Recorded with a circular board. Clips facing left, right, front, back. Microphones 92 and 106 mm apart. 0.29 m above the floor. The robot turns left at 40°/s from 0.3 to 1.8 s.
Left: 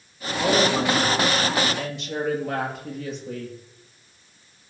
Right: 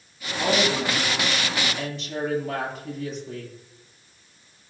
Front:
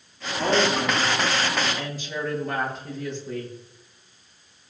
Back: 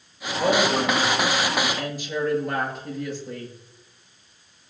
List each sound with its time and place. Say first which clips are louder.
0.4 s a woman speaking: left 3 dB, back 1 dB; 155° left, 6.5 m; by 3.5 s 100° left, 6.5 m